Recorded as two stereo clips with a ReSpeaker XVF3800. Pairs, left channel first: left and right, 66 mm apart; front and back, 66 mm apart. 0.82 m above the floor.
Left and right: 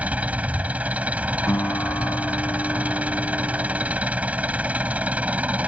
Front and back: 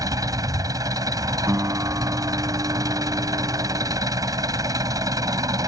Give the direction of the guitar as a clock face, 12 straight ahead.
8 o'clock.